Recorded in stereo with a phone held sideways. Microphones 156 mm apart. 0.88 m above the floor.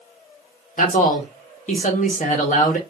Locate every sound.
0.8 s a man speaking: 55° left (ahead or behind), 0.9 m